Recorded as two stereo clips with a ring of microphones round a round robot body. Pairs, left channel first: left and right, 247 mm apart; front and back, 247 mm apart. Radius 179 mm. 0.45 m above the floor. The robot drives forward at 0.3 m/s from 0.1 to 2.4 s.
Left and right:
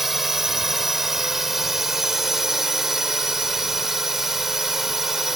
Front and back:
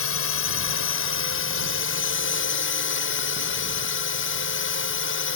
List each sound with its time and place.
0.0 s a drone: straight ahead